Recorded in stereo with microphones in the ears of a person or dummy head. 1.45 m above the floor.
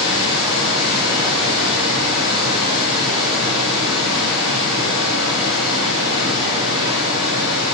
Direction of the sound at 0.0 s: 30° right (ahead or behind).